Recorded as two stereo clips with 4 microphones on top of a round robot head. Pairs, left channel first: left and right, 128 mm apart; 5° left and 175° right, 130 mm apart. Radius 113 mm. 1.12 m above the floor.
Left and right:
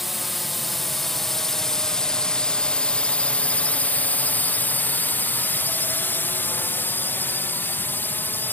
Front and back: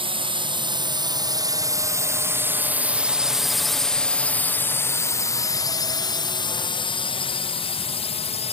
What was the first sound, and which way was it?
A drone, straight behind.